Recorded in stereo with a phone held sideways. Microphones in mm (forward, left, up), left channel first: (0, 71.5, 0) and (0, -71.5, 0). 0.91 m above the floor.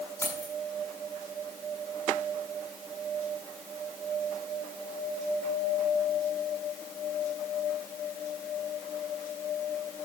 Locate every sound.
0.2 s keys jangling: 25° left (ahead or behind), 7 m